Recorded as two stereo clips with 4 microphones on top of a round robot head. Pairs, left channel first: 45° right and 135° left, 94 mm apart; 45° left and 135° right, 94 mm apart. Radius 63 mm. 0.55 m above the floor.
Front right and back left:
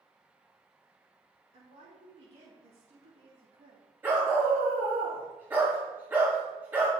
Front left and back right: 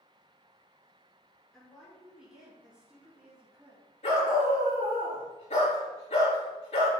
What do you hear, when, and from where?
1.5 s a woman speaking: 125° left, 5 m; by 3.9 s 150° left, 3 m
4.0 s a dog barking: 65° left, 4.5 m